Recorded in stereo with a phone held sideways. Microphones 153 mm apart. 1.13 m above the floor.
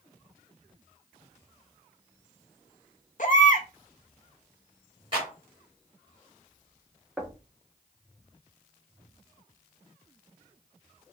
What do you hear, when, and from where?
3.2 s a baby crying: 55° left (ahead or behind), 0.8 m
5.1 s a clap: 35° right (ahead or behind), 2.5 m
7.2 s knocking: 10° right (ahead or behind), 0.8 m